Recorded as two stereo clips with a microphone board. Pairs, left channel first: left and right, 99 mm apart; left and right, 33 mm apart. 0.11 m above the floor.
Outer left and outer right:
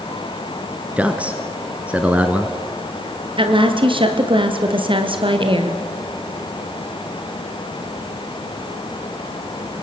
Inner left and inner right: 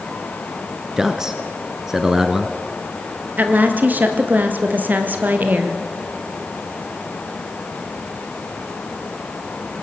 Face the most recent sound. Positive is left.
turn(degrees=-55)  # may be behind; listen again after turning